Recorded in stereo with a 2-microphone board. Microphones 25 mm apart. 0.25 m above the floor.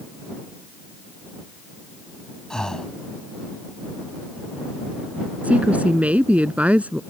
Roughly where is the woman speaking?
Right.